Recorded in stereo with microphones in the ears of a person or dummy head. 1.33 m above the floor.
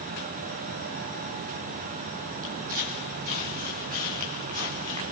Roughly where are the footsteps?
Right.